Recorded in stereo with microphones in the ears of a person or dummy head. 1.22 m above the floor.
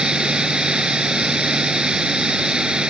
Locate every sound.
0.0 s running water: 5° right (ahead or behind)